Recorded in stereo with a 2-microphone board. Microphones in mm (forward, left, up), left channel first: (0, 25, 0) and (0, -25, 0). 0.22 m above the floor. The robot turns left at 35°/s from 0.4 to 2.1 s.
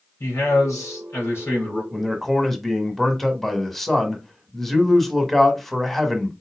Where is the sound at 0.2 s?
95° left, 3 m; by 1.8 s 45° left, 3 m.